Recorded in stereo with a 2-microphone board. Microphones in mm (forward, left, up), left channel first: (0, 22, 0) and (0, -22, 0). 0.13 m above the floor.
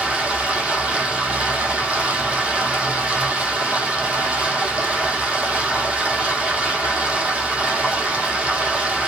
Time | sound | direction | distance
0.0 | running water | 30° right (ahead or behind) | 0.9 m